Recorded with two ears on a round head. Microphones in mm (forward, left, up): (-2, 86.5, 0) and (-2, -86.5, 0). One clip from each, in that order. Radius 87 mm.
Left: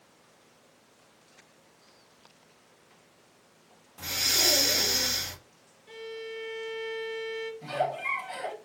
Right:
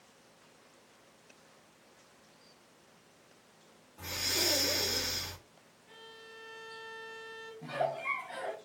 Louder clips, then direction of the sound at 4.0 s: Left 7 dB; 80° left.